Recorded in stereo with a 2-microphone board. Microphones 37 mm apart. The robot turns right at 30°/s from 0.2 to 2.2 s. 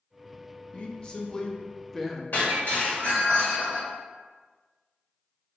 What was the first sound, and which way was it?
A woman speaking, 135° left.